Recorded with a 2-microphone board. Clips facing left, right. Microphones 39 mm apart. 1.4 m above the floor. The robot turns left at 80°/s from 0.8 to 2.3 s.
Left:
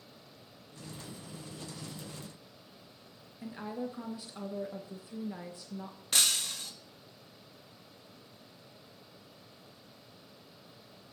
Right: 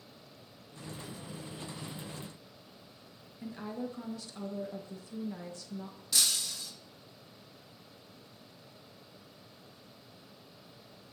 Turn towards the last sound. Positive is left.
turn(degrees=50)  # may be behind; listen again after turning